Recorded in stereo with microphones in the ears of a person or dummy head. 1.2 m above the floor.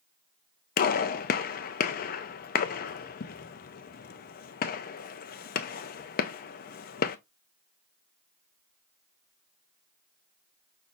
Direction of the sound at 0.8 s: 40° left (ahead or behind).